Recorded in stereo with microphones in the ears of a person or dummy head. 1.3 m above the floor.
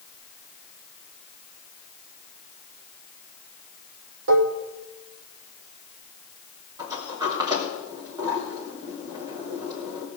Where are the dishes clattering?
50° right (ahead or behind), 0.8 m.